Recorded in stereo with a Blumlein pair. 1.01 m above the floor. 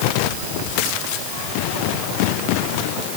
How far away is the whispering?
I don't hear whispering.